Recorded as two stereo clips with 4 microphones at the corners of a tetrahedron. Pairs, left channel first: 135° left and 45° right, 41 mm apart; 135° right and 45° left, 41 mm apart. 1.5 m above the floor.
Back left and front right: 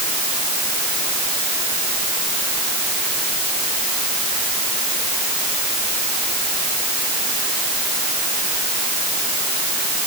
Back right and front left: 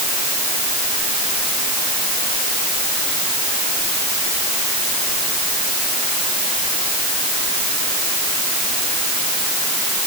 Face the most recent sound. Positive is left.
No sound to turn to.